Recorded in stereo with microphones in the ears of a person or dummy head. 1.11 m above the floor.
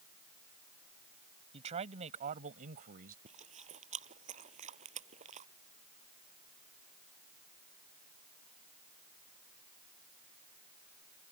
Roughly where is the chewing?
Right.